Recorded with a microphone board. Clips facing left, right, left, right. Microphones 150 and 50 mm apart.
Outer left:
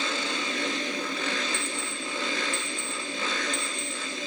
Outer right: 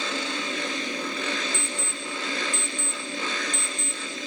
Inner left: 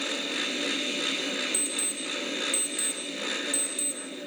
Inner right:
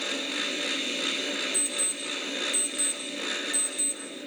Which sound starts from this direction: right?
An alarm clock, at 1.5 s.